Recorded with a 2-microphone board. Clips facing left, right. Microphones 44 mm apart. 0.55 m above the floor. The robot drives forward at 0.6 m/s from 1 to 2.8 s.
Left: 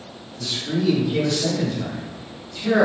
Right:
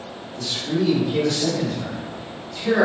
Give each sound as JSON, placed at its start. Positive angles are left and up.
{"t": 0.4, "sound": "a man speaking", "side_deg": -5, "distance_m": 1.1}